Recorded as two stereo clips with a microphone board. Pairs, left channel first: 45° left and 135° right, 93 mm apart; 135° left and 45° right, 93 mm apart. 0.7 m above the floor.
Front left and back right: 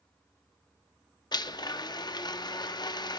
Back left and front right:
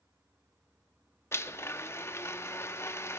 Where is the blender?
75° left, 0.6 m.